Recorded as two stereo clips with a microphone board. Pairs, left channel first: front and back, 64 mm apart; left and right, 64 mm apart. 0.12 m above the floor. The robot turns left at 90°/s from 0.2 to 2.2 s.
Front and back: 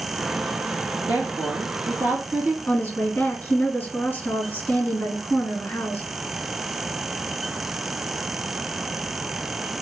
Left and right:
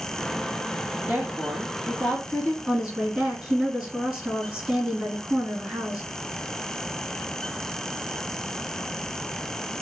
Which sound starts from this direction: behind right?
A woman speaking, at 1.1 s.